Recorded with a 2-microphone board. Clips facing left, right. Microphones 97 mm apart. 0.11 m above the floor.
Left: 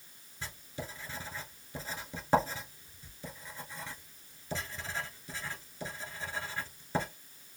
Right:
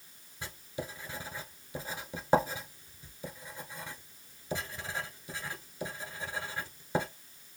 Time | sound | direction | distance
0.4 | writing | 15° right (ahead or behind) | 0.9 m